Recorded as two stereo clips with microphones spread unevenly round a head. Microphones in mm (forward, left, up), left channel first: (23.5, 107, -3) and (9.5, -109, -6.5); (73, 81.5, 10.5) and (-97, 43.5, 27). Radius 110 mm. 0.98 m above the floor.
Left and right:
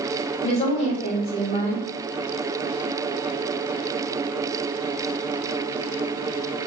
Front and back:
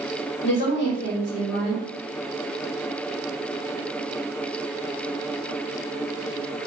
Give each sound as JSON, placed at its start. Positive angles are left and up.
{"t": 0.4, "sound": "a woman speaking", "azimuth_deg": 25, "distance_m": 1.7}